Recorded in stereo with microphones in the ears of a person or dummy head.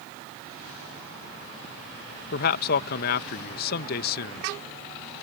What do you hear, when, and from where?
2.3 s a man speaking: 50° left (ahead or behind)